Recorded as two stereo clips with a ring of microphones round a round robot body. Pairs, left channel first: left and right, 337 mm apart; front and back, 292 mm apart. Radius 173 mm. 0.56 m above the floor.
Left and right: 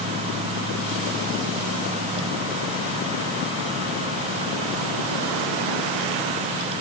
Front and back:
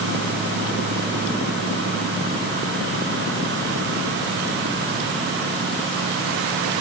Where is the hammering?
No hammering in this recording.